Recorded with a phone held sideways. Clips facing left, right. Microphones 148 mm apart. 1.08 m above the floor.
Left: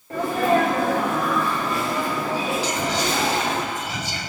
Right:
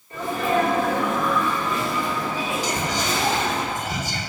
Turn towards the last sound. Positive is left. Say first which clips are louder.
# left 1 dB
turn(degrees=-45)  # may be behind; listen again after turning